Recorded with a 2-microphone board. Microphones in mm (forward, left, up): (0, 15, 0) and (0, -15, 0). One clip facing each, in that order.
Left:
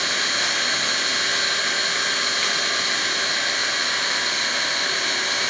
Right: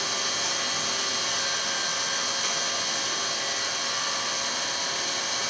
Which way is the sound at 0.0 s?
75° left (ahead or behind).